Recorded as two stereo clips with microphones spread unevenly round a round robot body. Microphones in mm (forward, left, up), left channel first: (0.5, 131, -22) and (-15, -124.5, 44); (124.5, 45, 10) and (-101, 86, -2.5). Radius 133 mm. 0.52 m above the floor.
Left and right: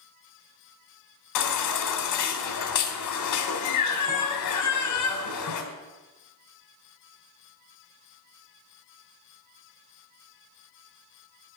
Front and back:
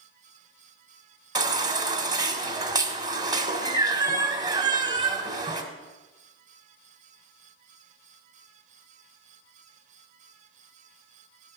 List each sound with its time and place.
1.4 s a baby crying: 95° left, 1.7 m